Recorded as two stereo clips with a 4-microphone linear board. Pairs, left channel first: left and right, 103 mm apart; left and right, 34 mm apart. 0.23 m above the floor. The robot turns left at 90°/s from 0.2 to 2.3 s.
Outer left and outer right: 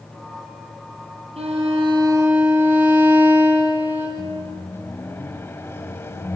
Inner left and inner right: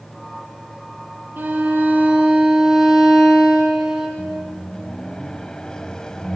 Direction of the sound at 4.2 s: 25° left (ahead or behind).